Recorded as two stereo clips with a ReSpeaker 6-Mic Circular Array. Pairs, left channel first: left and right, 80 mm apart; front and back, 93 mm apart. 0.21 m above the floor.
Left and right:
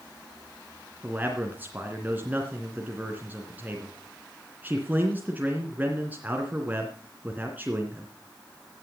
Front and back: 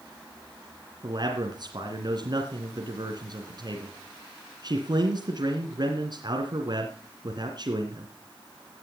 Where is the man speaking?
155° right, 2.5 m.